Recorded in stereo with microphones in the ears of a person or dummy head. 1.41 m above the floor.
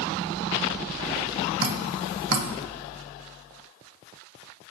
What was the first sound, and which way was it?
Dripping, 50° right (ahead or behind).